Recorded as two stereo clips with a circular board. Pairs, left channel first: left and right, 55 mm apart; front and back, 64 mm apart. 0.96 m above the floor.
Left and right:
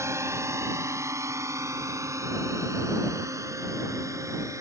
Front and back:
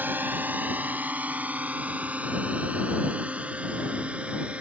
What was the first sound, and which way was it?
A drone, 120° right.